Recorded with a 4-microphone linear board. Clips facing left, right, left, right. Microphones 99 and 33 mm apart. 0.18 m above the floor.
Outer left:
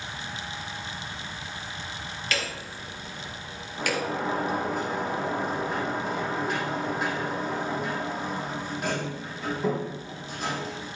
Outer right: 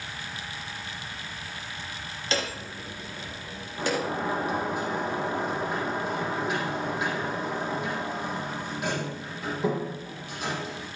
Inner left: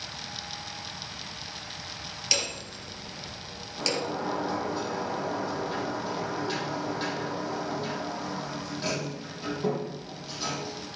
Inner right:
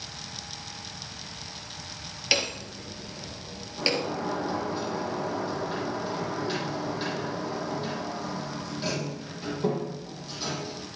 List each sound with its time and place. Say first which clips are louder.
2.3 s hammering: outer right 3 dB, inner right 4 dB; 25° right (ahead or behind), 2.5 m
3.8 s a sliding door: even, inner right 2 dB; centre (ahead or behind), 4 m